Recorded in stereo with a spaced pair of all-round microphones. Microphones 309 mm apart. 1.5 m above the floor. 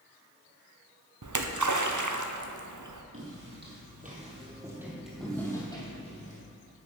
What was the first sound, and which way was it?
A splash, 70° right (ahead or behind).